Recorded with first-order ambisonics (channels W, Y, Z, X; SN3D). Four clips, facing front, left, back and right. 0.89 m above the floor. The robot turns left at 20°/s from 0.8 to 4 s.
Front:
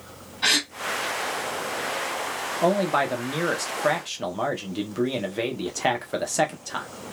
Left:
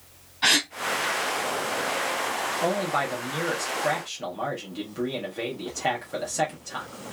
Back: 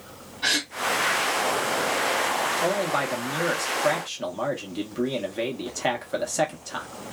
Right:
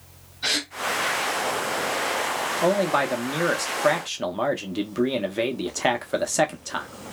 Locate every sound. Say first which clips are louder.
0.4 s a gasp: left 4 dB, front 2 dB; 65° left, 2 m
2.6 s a man speaking: right 6 dB, front 2 dB; 45° right, 0.7 m; by 6.9 s 70° right, 0.7 m